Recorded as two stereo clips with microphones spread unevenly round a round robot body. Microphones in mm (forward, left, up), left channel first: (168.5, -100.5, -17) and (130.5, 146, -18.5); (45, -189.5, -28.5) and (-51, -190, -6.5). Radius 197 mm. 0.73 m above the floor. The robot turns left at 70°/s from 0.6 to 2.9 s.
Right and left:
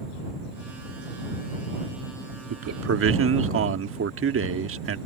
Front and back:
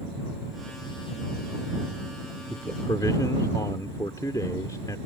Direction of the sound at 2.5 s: 95° left.